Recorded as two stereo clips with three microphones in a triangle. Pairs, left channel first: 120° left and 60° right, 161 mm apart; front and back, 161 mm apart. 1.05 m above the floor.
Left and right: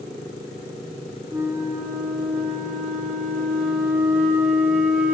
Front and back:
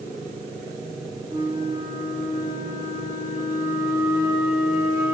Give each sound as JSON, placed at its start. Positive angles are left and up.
{"t": 1.3, "sound": "a flute", "azimuth_deg": -135, "distance_m": 3.0}